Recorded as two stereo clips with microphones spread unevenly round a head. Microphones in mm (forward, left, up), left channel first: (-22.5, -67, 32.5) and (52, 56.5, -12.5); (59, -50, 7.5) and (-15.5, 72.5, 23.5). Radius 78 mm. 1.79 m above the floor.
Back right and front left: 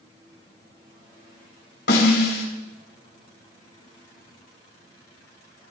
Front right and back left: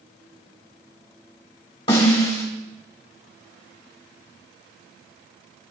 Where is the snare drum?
120° right, 4.5 m.